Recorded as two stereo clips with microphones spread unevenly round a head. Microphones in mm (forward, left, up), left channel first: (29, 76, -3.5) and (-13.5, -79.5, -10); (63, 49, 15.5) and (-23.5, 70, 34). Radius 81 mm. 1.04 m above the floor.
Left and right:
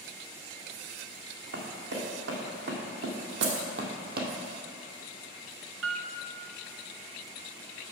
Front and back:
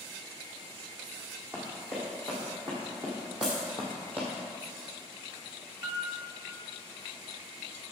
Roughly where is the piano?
Behind right.